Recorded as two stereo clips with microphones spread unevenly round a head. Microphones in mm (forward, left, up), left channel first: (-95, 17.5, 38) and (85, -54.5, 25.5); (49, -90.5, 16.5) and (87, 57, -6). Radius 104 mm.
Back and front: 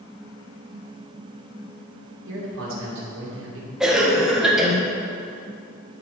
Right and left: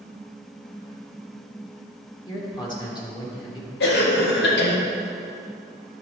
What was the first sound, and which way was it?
A man speaking, 40° right.